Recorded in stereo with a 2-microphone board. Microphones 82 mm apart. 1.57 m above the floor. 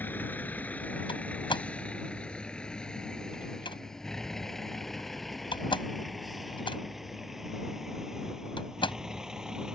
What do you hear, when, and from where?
0.0 s a vehicle: 25° left (ahead or behind); by 9.8 s 5° right (ahead or behind)
1.1 s a door slam: 85° left